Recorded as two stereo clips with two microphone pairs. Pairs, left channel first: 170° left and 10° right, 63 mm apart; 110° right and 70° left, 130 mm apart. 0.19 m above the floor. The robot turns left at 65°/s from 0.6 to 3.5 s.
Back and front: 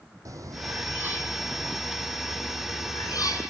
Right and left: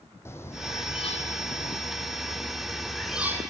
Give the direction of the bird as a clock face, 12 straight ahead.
1 o'clock.